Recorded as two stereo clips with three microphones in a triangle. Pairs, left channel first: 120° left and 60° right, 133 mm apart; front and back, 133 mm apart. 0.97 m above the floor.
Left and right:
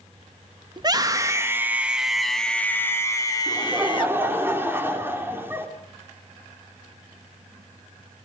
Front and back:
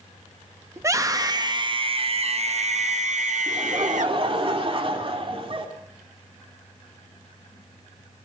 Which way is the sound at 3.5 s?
135° right.